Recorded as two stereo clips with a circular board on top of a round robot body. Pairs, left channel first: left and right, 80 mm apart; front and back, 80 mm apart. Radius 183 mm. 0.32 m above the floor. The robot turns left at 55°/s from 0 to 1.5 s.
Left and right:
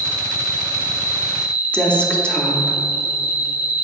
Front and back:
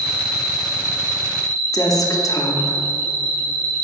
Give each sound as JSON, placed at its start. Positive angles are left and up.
{"t": 0.0, "sound": "an insect", "azimuth_deg": -80, "distance_m": 1.7}
{"t": 1.7, "sound": "a woman speaking", "azimuth_deg": 20, "distance_m": 1.1}